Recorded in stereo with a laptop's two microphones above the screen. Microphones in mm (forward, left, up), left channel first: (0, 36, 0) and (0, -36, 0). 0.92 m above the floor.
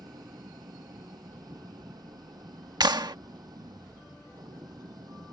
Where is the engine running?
65° right (ahead or behind).